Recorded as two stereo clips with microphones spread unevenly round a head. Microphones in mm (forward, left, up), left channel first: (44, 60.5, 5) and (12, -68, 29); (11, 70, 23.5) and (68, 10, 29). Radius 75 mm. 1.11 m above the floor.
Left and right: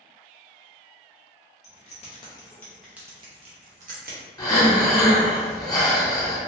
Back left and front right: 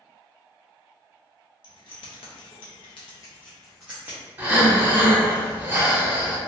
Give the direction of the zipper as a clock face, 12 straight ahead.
No zipper in this recording.